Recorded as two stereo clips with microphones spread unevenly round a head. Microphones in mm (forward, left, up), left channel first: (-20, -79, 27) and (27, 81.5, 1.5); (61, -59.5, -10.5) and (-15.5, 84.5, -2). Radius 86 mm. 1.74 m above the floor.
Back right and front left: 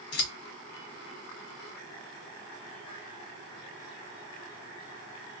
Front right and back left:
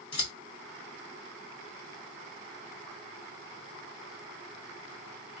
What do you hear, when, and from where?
0.1 s scissors: 125° right, 1.4 m